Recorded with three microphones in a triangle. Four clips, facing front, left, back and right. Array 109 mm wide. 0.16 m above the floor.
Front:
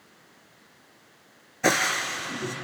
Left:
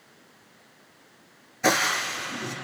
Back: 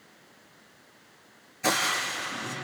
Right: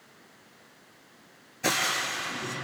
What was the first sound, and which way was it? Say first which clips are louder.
Frying: left 5 dB, front 3 dB; 25° left.